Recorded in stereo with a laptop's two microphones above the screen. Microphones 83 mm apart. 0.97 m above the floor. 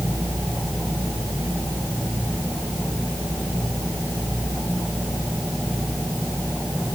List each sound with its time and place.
Only background noise.